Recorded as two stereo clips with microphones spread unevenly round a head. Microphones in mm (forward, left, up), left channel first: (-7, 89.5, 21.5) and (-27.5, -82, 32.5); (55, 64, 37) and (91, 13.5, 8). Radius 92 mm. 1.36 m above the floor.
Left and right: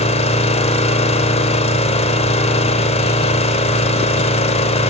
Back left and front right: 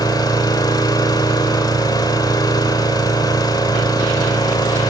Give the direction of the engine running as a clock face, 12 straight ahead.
7 o'clock.